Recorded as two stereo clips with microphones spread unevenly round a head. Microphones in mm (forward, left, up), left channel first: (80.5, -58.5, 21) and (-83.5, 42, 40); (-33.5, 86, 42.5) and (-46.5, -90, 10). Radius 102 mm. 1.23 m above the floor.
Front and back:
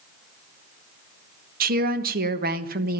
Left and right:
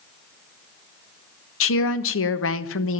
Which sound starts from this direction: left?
A woman speaking, at 1.6 s.